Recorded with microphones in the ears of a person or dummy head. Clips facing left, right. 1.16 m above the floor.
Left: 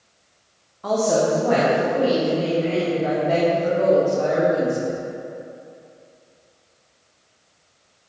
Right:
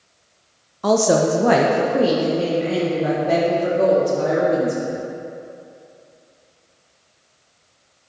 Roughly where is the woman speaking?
Right.